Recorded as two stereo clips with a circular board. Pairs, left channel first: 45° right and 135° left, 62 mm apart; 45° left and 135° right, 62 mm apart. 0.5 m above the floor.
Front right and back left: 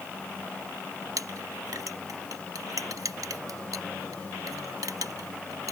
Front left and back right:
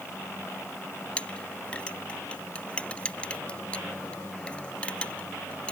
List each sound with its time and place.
1.2 s a clink: 115° left